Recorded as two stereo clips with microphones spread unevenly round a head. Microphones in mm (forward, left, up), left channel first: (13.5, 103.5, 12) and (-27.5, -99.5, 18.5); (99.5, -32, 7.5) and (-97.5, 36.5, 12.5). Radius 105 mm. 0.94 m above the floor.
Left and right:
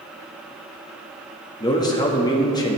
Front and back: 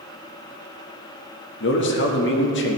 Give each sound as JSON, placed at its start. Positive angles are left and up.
{"t": 1.6, "sound": "a man speaking", "azimuth_deg": 10, "distance_m": 1.6}